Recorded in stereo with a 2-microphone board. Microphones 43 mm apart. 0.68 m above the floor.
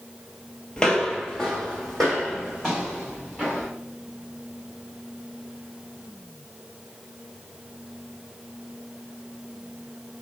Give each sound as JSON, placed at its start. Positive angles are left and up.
{"t": 0.8, "sound": "footsteps", "side_deg": 20, "distance_m": 0.8}